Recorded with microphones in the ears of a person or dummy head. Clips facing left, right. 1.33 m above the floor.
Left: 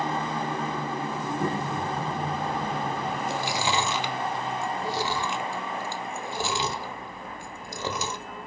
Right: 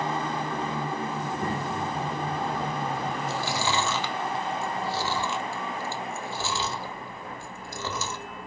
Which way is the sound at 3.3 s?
15° left (ahead or behind).